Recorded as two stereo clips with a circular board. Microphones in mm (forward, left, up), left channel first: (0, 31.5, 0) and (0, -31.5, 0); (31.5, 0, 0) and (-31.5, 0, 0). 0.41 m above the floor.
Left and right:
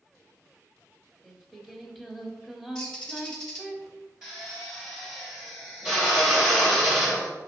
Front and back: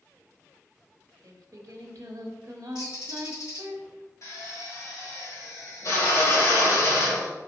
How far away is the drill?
About 1.7 m.